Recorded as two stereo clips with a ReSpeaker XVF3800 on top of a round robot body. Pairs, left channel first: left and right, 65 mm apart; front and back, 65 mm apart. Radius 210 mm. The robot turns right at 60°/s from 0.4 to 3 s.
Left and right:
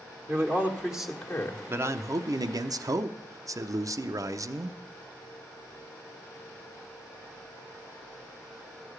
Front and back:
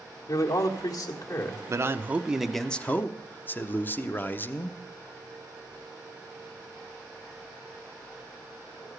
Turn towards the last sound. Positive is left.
turn(degrees=-60)